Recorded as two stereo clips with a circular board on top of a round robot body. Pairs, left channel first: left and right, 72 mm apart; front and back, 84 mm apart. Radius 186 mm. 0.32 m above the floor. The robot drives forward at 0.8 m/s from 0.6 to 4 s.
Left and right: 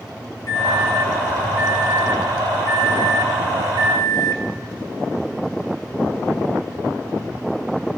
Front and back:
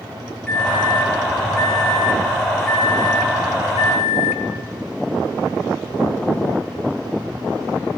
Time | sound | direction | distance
0.5 | a microwave | 80° left | 5 m